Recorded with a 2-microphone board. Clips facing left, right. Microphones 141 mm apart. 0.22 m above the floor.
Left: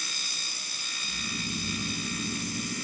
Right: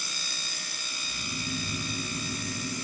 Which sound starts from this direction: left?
Snoring, at 1.0 s.